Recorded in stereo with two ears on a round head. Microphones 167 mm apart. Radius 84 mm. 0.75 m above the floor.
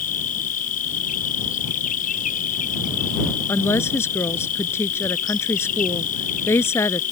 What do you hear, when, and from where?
0.0 s an insect: 45° left (ahead or behind)
3.5 s a woman speaking: 15° left (ahead or behind)